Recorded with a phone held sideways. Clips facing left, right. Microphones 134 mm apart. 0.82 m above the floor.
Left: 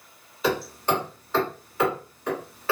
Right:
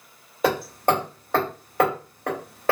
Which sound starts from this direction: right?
Hammering, at 0.4 s.